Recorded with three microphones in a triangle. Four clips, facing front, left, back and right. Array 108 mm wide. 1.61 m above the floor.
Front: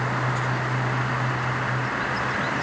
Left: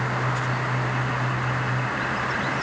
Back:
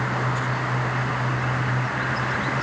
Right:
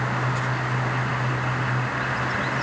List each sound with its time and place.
Only background noise.